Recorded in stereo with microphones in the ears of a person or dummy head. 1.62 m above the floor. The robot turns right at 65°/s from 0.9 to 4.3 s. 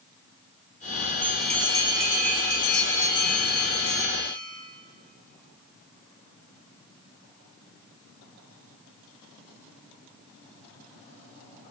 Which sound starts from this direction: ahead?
A bell, at 1.2 s.